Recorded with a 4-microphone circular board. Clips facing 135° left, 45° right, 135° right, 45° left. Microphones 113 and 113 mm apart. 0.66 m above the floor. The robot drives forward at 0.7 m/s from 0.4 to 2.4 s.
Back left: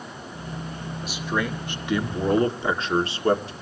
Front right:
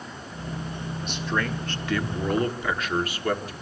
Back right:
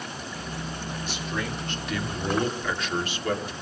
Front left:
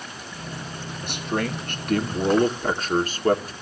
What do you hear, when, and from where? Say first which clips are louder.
1.0 s a man speaking: back left 1 dB, front left 7 dB; 50° left, 2.5 m; by 3.5 s 80° left, 2.0 m